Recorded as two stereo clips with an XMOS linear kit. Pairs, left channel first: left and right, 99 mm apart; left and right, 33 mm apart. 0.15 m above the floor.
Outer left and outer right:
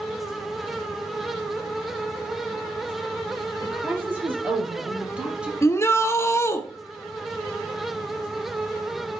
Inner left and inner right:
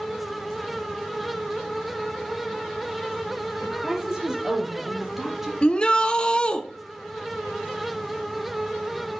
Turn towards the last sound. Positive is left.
turn(degrees=30)  # may be behind; listen again after turning